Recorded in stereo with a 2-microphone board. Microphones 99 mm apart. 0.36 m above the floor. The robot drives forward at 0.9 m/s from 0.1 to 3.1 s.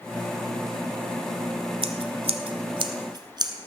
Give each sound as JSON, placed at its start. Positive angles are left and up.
{"t": 1.8, "sound": "scissors", "side_deg": -70, "distance_m": 0.9}